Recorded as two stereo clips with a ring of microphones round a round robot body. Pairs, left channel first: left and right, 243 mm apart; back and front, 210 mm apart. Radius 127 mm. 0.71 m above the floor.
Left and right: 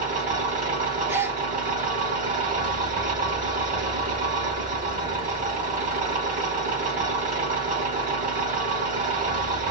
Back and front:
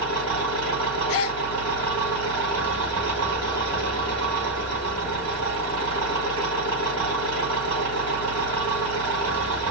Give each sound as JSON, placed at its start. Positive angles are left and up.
{"t": 0.0, "sound": "an engine running", "azimuth_deg": -30, "distance_m": 3.0}
{"t": 1.1, "sound": "a gasp", "azimuth_deg": -170, "distance_m": 1.0}